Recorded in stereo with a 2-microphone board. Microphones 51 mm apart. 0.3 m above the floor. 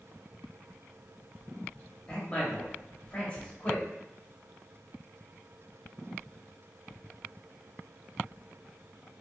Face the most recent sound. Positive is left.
turn(degrees=25)  # may be behind; listen again after turning